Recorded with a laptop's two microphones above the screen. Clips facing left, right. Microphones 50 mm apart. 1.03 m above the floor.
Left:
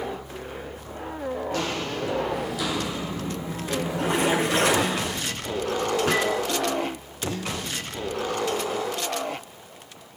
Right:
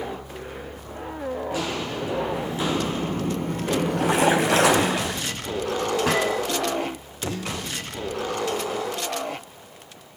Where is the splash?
80° right, 4.5 m.